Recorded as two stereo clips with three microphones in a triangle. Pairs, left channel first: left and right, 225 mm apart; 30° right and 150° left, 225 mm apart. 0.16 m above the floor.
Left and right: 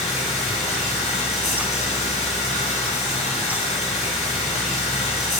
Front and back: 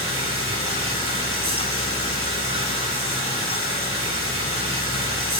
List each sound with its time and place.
0.0 s running water: 150° left, 3 m